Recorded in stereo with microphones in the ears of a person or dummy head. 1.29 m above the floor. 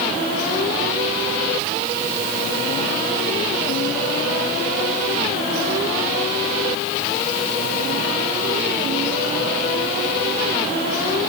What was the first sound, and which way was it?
Only background noise.